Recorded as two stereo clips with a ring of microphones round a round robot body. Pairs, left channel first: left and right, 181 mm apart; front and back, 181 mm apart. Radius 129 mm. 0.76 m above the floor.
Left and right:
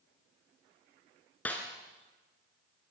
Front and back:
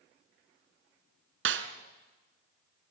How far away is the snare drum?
About 1.8 m.